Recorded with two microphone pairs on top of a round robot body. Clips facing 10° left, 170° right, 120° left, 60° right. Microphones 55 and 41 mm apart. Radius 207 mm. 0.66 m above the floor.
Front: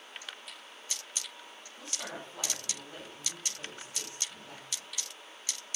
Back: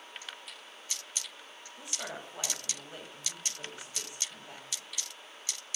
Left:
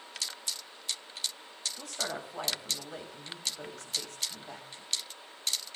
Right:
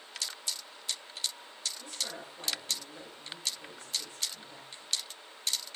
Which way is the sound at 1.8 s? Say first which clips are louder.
Back 1 dB, left 4 dB; 115° left.